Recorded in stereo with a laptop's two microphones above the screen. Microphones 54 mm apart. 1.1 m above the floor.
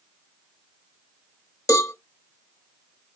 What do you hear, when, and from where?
1.7 s a cowbell: 80° left, 0.9 m